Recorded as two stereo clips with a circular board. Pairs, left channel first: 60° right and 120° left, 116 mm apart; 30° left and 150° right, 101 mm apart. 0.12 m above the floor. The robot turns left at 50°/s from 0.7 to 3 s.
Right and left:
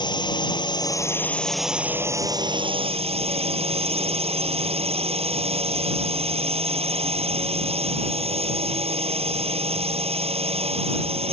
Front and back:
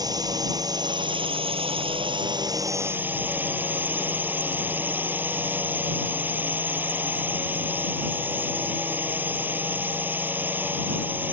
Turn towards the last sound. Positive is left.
turn(degrees=140)